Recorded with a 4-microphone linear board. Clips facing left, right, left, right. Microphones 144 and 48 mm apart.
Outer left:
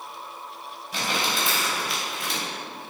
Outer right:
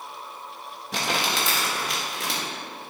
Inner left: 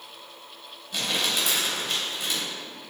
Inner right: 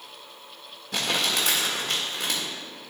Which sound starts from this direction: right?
Crumpling, at 0.9 s.